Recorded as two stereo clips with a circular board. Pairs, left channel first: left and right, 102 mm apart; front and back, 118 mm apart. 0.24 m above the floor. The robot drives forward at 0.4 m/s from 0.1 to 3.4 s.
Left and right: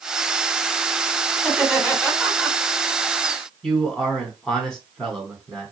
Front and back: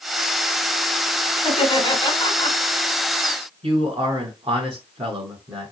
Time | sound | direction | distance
1.4 | laughter | 5° left | 1.4 m
3.6 | a man speaking | 170° left | 2.0 m